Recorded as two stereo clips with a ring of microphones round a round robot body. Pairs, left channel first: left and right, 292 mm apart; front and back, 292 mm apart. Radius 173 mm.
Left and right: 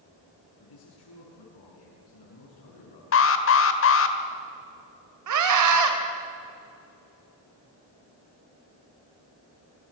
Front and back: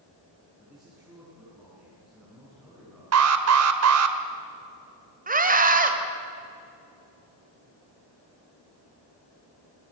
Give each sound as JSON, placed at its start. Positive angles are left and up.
{"t": 0.6, "sound": "a man speaking", "azimuth_deg": 90, "distance_m": 7.0}
{"t": 3.1, "sound": "an alarm", "azimuth_deg": 140, "distance_m": 1.6}
{"t": 5.3, "sound": "a scream", "azimuth_deg": -120, "distance_m": 3.5}